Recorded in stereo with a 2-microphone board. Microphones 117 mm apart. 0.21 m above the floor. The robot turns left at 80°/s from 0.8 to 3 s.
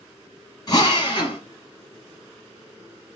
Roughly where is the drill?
Behind left.